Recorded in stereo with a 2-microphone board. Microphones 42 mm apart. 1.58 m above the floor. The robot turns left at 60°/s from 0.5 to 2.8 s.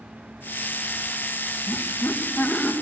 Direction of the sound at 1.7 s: 95° left.